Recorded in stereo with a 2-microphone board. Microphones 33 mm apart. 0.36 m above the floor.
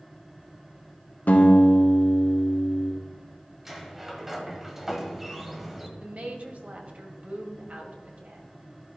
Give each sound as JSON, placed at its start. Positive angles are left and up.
{"t": 1.3, "sound": "a guitar", "side_deg": 65, "distance_m": 1.9}
{"t": 3.6, "sound": "a sliding door", "side_deg": -5, "distance_m": 1.2}
{"t": 6.0, "sound": "a woman speaking", "side_deg": -50, "distance_m": 1.7}